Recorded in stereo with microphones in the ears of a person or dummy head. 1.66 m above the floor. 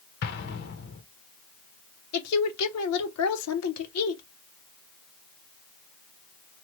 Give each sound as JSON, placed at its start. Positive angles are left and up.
{"t": 0.2, "sound": "an explosion", "side_deg": 55, "distance_m": 0.7}
{"t": 2.1, "sound": "a woman speaking", "side_deg": 85, "distance_m": 0.8}